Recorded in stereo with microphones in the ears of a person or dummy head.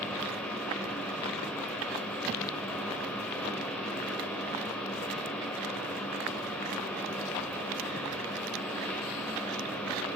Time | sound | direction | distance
0.0 | a fan | 5° left (ahead or behind) | 2.5 m